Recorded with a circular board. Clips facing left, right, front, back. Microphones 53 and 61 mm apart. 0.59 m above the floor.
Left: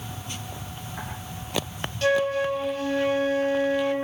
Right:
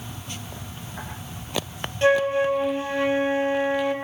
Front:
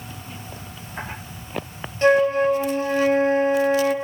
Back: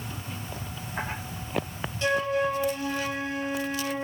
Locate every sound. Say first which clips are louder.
2.0 s a flute: right 3 dB, front 9 dB; 35° right, 0.5 m